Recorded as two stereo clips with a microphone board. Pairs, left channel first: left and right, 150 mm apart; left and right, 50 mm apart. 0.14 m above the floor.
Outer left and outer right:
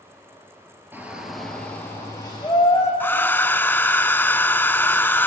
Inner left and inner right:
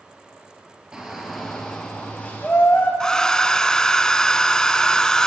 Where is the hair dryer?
15° left (ahead or behind), 0.5 m.